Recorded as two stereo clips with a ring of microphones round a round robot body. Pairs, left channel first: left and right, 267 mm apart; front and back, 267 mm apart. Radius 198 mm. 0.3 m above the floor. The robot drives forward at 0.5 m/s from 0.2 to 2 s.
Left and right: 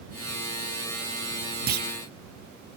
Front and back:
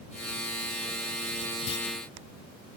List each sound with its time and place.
1.7 s a clunk: 30° right, 0.7 m; by 1.9 s 35° right, 0.6 m